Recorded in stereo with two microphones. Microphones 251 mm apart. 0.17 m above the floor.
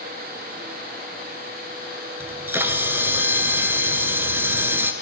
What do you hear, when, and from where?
2.2 s a camera shutter: 10° right (ahead or behind), 1.3 m